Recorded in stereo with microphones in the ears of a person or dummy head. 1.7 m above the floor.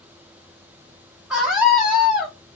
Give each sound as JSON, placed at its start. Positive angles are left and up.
{"t": 1.3, "sound": "a scream", "side_deg": -5, "distance_m": 0.9}